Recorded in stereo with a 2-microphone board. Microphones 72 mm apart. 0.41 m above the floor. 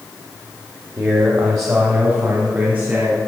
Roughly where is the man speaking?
Right.